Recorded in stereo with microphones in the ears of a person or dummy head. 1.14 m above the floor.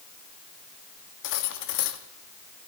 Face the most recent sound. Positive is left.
turn(degrees=60)  # may be behind; listen again after turning